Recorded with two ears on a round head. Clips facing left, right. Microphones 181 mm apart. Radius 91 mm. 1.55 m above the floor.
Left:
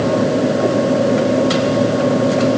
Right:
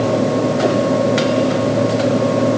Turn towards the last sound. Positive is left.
No sound to turn to.